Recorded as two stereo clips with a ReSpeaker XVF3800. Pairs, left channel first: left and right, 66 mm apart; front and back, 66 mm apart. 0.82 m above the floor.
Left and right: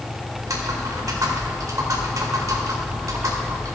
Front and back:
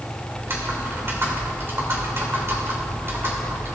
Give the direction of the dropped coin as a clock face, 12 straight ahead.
I don't hear a dropped coin.